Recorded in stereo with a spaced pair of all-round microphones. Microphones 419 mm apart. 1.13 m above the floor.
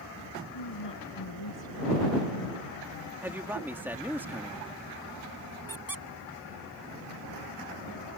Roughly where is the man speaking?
Centre.